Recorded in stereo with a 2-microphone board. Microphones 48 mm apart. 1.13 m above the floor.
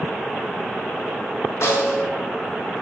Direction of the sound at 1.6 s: 75° left (ahead or behind).